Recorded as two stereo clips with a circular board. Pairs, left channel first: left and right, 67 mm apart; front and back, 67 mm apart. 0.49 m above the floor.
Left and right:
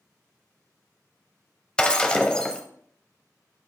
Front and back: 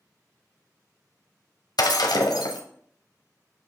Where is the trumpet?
No trumpet in this recording.